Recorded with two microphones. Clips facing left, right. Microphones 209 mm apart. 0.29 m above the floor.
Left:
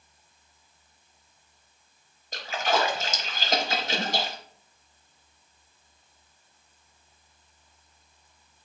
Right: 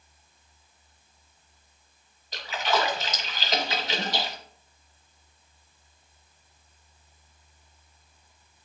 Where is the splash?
45° left (ahead or behind), 0.8 m.